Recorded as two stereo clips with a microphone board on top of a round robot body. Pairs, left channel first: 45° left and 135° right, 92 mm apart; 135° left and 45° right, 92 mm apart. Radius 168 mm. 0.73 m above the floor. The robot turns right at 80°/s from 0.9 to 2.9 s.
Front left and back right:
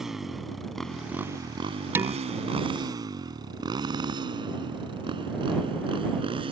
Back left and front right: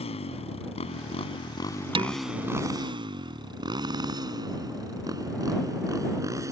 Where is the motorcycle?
140° left; by 6.5 s 105° right.